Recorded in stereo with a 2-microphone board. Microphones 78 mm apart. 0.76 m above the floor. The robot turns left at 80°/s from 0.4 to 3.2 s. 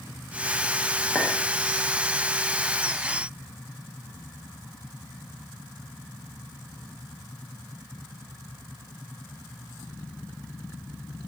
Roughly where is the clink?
Centre.